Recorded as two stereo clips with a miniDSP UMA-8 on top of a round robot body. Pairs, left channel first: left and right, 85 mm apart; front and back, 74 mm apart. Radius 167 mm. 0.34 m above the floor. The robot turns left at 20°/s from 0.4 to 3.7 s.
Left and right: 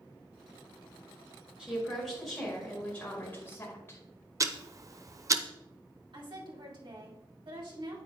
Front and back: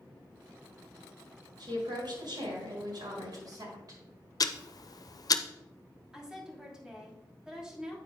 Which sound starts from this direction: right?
A woman speaking, at 6.1 s.